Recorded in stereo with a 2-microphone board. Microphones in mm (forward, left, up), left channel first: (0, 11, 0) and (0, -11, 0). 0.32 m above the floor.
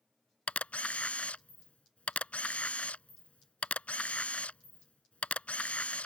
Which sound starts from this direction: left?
A camera shutter, at 0.5 s.